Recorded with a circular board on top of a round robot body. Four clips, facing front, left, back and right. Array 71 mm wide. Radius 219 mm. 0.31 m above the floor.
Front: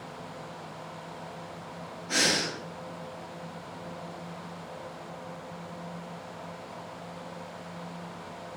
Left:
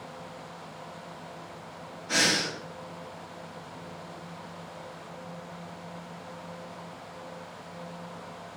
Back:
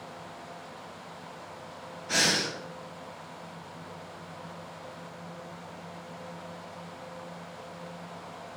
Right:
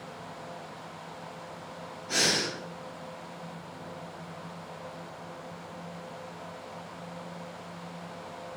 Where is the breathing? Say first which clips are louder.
Left 2 dB, even; 155° left, 2 m.